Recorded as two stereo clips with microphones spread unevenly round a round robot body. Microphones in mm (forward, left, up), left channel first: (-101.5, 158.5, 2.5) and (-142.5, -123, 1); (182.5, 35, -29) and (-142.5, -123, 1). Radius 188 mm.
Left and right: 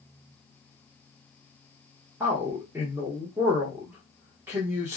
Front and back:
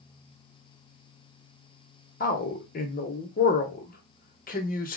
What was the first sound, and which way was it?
A man speaking, 20° right.